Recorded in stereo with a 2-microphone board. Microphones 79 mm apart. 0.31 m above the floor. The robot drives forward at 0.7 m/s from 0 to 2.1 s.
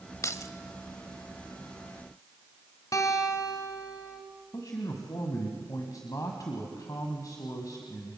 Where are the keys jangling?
45° left (ahead or behind), 0.8 m; by 0.5 s 40° left (ahead or behind), 0.8 m.